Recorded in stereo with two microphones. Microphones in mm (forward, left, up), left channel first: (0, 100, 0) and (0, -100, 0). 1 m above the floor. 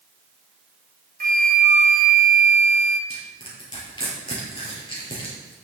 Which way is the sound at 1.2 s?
40° right (ahead or behind).